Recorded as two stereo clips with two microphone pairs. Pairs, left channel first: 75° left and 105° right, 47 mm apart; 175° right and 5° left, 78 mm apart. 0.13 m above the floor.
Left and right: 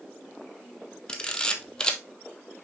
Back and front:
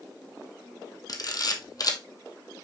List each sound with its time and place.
1.1 s a camera shutter: 145° left, 1.4 m